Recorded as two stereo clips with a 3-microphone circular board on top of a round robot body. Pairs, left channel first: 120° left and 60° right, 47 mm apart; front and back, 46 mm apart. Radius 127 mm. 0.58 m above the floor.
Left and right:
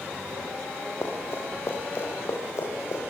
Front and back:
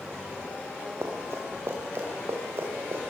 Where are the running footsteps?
150° left, 7.5 m; by 3.0 s 140° left, 8 m.